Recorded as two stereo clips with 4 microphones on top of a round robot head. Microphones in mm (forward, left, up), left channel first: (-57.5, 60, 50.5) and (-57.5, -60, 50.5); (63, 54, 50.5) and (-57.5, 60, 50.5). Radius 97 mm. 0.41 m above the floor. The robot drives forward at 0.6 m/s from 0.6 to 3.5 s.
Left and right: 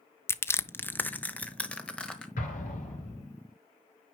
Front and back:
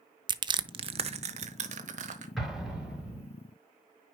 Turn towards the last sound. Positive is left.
turn(degrees=100)